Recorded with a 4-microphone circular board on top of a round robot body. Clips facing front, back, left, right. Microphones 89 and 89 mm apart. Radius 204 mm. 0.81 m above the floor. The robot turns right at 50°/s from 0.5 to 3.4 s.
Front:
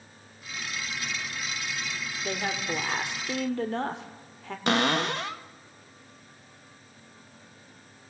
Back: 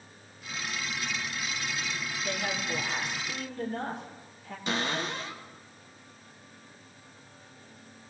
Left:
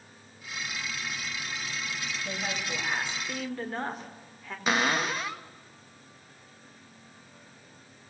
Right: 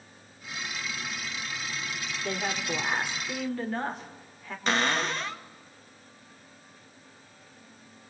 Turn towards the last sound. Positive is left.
turn(degrees=5)